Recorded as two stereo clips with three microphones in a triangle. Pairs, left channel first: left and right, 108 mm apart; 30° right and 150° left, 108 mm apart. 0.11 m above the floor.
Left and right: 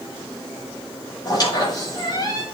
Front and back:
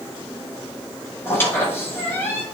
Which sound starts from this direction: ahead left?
A squeak, at 1.2 s.